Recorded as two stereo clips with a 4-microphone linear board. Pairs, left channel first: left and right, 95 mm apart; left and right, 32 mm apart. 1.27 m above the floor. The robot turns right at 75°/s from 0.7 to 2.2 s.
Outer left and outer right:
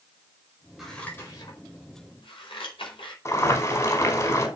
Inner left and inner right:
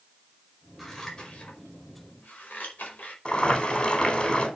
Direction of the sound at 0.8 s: 5° right (ahead or behind).